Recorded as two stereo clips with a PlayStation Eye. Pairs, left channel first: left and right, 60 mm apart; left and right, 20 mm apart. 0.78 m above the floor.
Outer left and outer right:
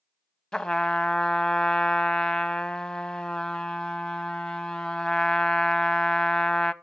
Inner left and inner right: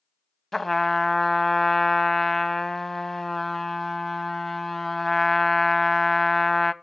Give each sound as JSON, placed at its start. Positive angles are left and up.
{"t": 0.5, "sound": "a trumpet", "side_deg": 15, "distance_m": 0.7}